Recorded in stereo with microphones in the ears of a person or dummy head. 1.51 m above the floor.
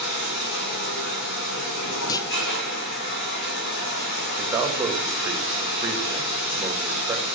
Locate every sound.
0.0 s running water: 65° left (ahead or behind), 2.5 m
2.1 s a clunk: 15° left (ahead or behind), 0.6 m
4.4 s a man speaking: 10° right (ahead or behind), 2 m